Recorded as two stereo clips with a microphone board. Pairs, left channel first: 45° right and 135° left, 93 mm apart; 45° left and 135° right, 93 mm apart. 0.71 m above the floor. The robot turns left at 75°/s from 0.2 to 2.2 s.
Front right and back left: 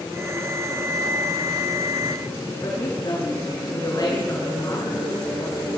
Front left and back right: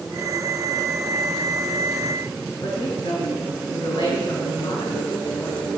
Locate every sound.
2.6 s a woman speaking: 5° left, 7 m